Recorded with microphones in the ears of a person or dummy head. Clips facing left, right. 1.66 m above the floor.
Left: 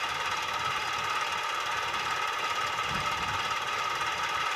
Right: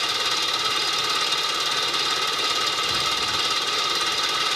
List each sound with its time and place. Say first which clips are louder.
0.0 s an engine running: right 5 dB; 55° right (ahead or behind)